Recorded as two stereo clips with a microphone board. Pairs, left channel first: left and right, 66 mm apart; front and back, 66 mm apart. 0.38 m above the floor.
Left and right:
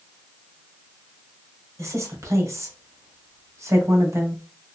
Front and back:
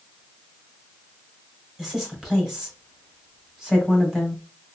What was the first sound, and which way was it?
A woman speaking, 95° right.